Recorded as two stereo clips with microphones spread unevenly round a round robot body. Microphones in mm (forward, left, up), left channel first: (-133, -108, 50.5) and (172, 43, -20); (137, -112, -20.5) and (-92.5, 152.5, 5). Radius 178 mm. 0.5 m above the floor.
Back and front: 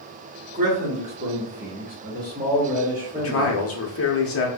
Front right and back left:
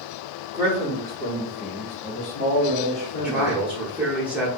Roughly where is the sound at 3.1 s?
Behind right.